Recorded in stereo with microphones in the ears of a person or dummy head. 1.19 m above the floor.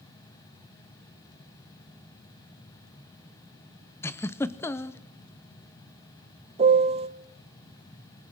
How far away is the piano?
About 0.9 m.